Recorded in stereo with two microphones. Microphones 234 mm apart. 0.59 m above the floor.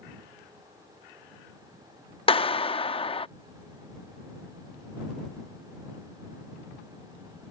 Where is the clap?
25° left (ahead or behind).